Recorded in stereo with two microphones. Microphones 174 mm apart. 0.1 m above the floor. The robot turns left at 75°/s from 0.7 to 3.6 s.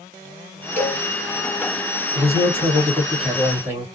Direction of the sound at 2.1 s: 50° right.